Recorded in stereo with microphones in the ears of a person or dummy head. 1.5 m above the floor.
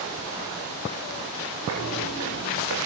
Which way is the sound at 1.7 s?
75° right (ahead or behind).